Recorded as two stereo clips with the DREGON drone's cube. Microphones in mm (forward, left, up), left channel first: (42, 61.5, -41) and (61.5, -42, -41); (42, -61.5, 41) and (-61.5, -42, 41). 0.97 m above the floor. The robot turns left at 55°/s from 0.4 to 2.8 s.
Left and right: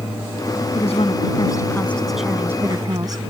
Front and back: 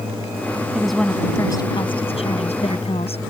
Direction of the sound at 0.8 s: 85° left.